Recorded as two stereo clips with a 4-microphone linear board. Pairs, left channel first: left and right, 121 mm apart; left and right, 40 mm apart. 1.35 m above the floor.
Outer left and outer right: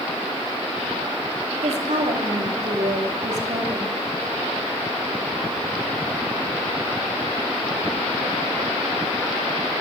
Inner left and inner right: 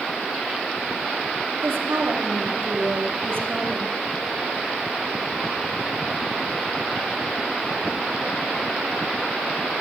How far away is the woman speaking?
About 3 m.